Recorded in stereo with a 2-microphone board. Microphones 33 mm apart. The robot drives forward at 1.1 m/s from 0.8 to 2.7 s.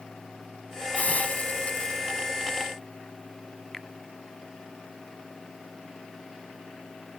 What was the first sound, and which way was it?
A hiss, 50° left (ahead or behind).